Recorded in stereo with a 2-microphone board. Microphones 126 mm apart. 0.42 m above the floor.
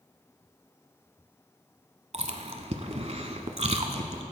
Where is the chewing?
60° right (ahead or behind), 0.8 m.